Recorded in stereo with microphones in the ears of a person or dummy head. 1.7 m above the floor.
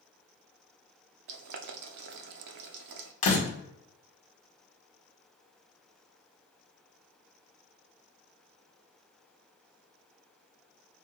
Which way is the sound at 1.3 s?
60° right (ahead or behind).